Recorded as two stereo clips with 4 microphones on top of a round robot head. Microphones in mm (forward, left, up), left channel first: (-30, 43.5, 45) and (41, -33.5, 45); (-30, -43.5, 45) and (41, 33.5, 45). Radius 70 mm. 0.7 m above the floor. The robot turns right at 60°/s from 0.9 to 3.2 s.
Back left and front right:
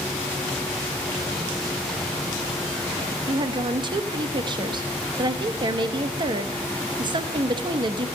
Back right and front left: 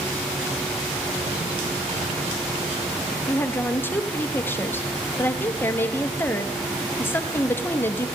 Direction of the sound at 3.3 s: 70° right.